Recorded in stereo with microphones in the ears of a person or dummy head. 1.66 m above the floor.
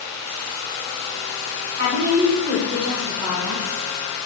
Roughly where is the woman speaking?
Right.